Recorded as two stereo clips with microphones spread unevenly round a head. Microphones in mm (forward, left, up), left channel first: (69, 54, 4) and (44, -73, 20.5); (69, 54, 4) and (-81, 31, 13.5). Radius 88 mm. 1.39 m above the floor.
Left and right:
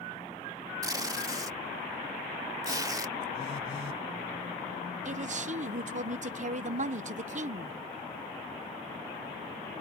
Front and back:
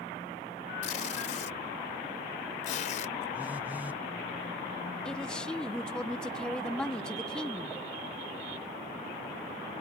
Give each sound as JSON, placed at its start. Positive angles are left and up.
{"t": 0.8, "sound": "tape being pulled", "azimuth_deg": -45}
{"t": 3.3, "sound": "a phone buzzing", "azimuth_deg": 110}
{"t": 5.0, "sound": "a man speaking", "azimuth_deg": -75}